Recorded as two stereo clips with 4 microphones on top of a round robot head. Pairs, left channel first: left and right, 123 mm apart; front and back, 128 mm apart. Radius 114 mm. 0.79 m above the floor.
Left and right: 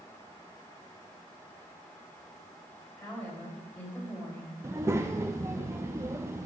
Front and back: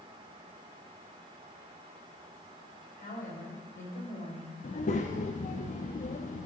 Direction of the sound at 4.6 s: 20° right.